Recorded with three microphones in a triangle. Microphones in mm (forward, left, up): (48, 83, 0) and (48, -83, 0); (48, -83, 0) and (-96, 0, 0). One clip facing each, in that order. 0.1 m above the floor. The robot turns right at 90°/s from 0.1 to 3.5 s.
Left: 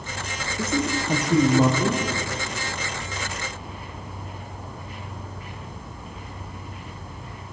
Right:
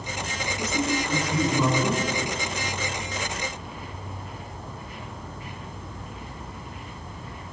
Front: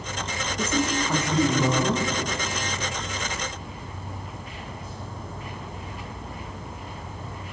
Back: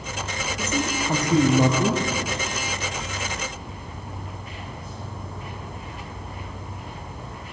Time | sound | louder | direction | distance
0.6 | a man speaking | left 2 dB, front 2 dB | 40° left | 6 m